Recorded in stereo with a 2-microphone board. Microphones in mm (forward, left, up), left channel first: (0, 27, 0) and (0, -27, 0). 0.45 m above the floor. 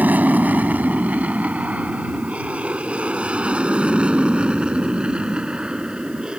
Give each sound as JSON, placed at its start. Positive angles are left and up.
{"t": 0.0, "sound": "an aircraft", "side_deg": -30}